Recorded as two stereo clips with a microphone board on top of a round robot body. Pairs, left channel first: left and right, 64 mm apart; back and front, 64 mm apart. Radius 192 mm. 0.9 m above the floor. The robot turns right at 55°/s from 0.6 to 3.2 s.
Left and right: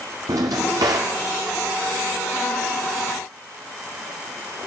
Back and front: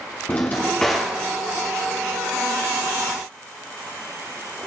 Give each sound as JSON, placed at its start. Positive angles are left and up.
{"t": 0.3, "sound": "a drawer", "azimuth_deg": -115, "distance_m": 0.7}